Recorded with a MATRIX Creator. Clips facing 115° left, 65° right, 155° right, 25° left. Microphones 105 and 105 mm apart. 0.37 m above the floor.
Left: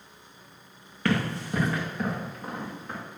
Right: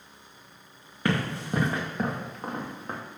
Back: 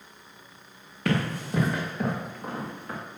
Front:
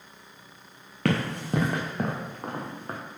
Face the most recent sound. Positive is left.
turn(degrees=-30)